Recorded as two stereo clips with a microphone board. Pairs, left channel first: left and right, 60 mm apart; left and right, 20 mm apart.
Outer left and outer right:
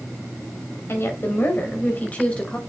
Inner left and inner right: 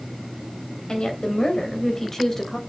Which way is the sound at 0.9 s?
40° left (ahead or behind).